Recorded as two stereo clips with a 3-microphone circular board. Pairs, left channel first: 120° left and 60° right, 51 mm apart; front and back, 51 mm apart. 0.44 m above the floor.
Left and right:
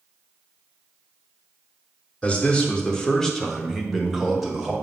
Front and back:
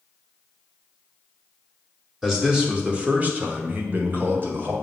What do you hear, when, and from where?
2.2 s a man speaking: 110° left, 0.9 m; by 4.7 s 140° right, 1.6 m